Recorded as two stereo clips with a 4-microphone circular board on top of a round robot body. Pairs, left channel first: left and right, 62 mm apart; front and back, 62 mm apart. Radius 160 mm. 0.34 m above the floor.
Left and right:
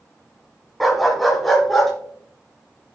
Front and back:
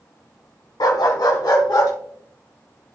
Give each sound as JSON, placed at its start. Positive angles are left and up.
{"t": 0.8, "sound": "a dog barking", "azimuth_deg": 0, "distance_m": 1.5}